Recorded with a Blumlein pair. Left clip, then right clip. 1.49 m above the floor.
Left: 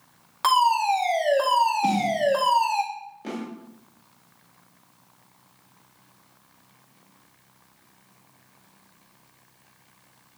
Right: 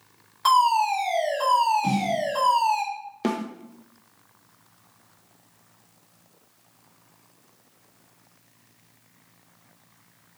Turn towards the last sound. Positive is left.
turn(degrees=-50)